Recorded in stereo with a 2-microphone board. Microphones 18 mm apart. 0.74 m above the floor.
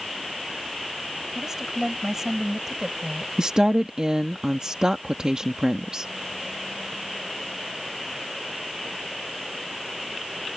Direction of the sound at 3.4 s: 45° right (ahead or behind).